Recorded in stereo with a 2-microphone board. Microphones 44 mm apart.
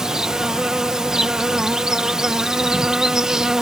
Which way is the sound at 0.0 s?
10° right (ahead or behind).